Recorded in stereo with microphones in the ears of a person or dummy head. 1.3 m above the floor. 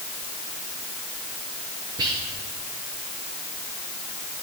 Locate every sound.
2.0 s whispering: 20° right (ahead or behind), 0.7 m